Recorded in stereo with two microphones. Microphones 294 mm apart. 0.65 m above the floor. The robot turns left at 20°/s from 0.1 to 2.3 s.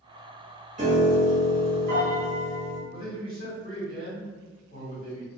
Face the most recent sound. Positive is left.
turn(degrees=45)  # may be behind; listen again after turning